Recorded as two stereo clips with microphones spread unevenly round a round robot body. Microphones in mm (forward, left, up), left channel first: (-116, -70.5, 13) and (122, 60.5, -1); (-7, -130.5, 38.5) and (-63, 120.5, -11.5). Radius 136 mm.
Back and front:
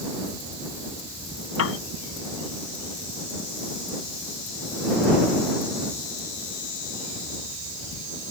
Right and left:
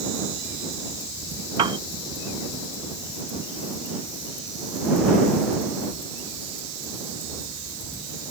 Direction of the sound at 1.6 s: 170° left.